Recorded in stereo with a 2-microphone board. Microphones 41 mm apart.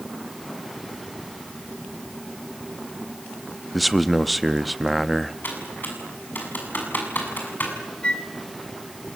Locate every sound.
3.7 s a man speaking: centre (ahead or behind), 0.6 m
5.4 s typing on a keyboard: 45° left (ahead or behind), 7 m
8.0 s a flute: 25° left (ahead or behind), 1.4 m